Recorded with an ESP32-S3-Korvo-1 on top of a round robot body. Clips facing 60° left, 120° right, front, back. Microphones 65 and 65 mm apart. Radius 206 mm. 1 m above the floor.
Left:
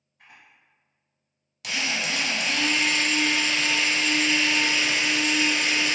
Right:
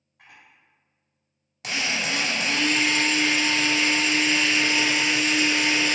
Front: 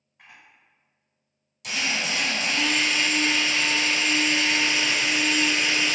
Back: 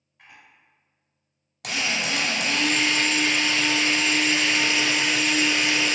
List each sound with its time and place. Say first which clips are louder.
0.2 s a camera shutter: right 1 dB, even; 80° right, 1.4 m
1.6 s a drill: right 1 dB, back 1 dB; 175° right, 1.3 m